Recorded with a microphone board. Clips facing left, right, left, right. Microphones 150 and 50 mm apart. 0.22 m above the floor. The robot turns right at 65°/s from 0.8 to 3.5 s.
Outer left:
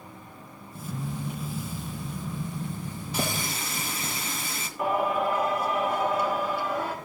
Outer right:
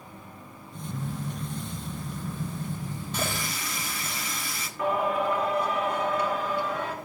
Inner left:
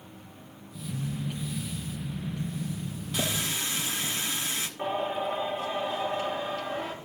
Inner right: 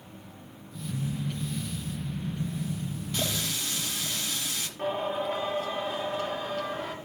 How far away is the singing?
About 1.8 m.